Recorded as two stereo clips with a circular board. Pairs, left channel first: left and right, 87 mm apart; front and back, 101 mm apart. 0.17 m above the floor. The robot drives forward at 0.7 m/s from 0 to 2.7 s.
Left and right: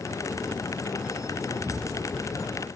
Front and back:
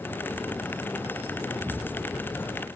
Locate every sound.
1.6 s an explosion: 115° left, 1.1 m; by 2.7 s 155° left, 1.4 m